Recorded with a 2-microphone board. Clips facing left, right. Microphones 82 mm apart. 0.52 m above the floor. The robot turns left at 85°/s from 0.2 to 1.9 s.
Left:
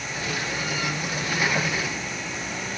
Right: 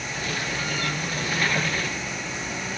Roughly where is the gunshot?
No gunshot in this recording.